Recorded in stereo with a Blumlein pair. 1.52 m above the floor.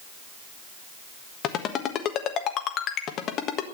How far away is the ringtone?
About 1.4 m.